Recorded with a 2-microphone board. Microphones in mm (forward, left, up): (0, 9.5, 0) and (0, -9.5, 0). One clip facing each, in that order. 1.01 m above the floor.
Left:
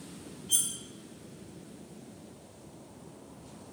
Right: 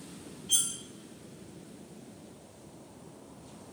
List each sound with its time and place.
0.5 s cutlery clinking: 20° right (ahead or behind), 0.6 m